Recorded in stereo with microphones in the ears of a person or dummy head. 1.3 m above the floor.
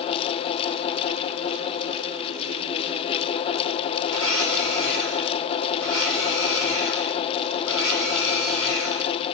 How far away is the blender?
About 4.5 m.